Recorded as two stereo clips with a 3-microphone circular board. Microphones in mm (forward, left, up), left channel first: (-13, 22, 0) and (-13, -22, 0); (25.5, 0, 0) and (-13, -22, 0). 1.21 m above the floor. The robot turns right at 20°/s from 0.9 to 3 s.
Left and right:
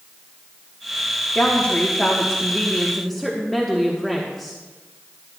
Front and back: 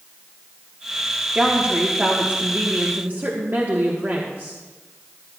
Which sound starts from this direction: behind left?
A woman speaking, at 1.3 s.